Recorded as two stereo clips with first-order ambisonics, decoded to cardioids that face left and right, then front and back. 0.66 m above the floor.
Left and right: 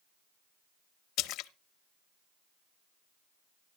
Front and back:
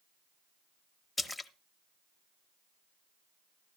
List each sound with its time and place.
1.2 s a splash: 80° left, 0.6 m